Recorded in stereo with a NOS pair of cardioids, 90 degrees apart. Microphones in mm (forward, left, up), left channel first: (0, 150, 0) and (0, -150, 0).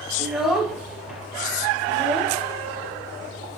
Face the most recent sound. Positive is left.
turn(degrees=0)